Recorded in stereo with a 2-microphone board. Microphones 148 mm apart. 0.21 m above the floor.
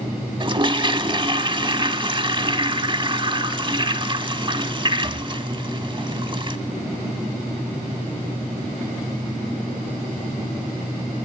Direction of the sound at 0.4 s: 35° right (ahead or behind).